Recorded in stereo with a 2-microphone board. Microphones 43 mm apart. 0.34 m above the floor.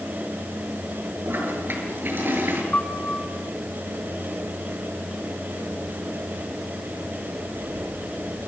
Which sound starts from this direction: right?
A toilet flushing, at 1.2 s.